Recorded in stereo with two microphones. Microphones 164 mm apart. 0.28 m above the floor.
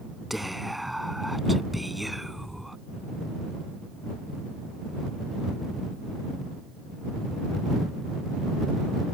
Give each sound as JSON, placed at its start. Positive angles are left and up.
{"t": 0.3, "sound": "whispering", "side_deg": 0}